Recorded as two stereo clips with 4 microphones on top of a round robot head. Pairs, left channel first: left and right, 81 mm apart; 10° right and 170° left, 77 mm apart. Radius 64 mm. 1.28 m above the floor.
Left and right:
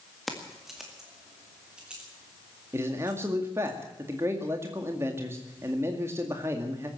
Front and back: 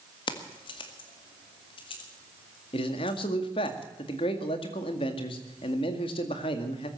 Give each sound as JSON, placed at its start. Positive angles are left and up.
{"t": 0.3, "sound": "keys jangling", "azimuth_deg": 0, "distance_m": 1.7}
{"t": 2.7, "sound": "a man speaking", "azimuth_deg": -25, "distance_m": 2.0}